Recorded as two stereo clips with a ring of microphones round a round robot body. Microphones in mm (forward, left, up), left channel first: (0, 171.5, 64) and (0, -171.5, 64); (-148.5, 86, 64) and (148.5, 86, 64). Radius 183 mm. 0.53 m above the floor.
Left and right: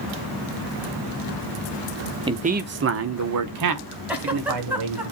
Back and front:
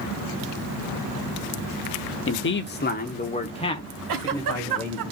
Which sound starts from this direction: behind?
A man speaking, at 2.3 s.